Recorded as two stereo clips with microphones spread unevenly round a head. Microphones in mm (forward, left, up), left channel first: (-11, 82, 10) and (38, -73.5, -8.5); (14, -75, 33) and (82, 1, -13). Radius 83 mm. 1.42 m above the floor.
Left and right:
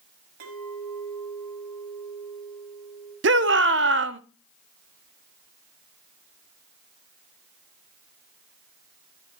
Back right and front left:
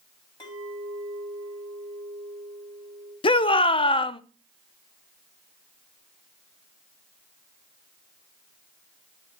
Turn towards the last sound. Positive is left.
turn(degrees=-95)